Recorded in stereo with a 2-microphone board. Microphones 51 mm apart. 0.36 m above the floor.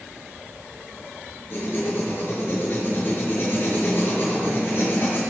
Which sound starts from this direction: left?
Writing, at 1.5 s.